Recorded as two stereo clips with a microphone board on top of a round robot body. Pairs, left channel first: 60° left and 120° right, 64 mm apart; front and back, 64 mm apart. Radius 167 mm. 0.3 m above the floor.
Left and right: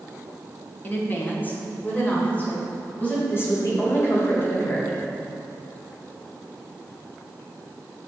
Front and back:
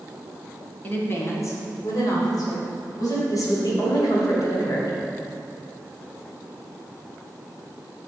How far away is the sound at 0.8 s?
About 1.6 m.